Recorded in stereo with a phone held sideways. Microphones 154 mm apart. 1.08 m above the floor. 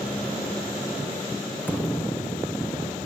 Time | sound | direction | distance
1.7 | a thud | 10° left (ahead or behind) | ?